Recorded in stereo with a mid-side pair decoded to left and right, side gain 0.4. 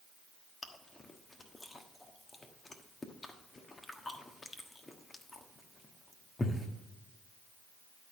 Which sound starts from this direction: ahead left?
Chewing, at 0.6 s.